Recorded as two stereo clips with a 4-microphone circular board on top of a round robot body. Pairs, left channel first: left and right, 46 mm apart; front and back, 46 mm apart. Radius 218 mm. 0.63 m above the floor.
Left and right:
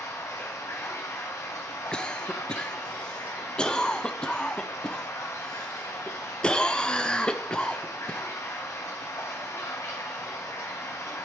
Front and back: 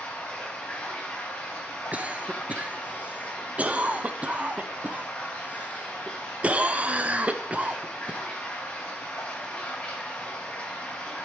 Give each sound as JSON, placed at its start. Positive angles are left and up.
{"t": 0.0, "sound": "running water", "azimuth_deg": 65, "distance_m": 1.0}
{"t": 1.9, "sound": "a cough", "azimuth_deg": 150, "distance_m": 1.1}